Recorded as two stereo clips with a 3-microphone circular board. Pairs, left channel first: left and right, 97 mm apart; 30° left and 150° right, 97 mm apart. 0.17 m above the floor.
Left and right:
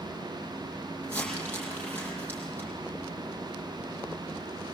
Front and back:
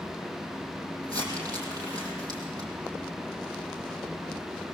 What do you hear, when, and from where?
1.0 s crumpling: 160° left, 6 m